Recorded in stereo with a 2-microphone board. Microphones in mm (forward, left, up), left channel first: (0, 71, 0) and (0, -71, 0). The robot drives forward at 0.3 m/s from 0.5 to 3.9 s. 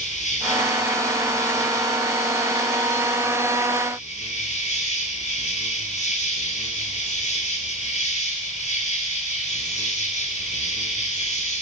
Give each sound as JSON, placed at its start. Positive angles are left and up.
{"t": 0.0, "sound": "an insect", "side_deg": 65, "distance_m": 9.5}